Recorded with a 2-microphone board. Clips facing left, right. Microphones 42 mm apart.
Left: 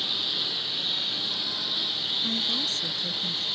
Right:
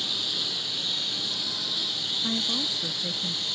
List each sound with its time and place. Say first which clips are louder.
0.0 s a lawn mower: left 1 dB; 10° left (ahead or behind)
2.2 s a woman speaking: right 2 dB; 20° right (ahead or behind)